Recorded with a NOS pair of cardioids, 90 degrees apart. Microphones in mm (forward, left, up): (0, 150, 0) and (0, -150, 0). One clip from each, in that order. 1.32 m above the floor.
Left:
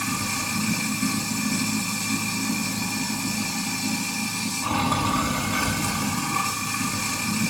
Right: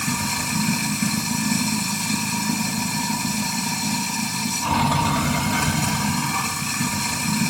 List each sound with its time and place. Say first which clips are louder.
0.0 s running water: right 2 dB; 30° right, 4 m